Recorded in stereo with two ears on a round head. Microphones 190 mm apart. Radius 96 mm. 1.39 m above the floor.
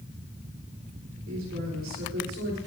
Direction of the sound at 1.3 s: 60° right (ahead or behind).